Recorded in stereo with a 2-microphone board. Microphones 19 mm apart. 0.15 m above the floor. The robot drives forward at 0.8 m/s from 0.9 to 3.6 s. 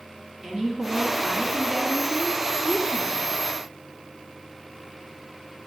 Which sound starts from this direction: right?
A woman speaking, at 0.4 s.